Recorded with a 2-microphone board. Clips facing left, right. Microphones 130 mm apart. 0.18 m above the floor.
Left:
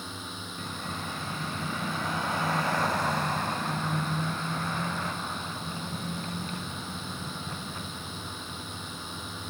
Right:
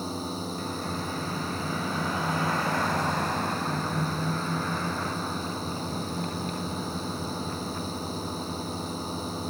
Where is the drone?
35° right (ahead or behind).